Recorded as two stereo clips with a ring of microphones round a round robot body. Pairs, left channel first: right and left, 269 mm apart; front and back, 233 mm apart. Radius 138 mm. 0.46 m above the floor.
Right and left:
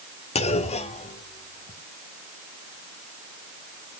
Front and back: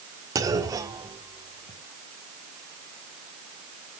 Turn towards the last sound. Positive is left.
turn(degrees=-120)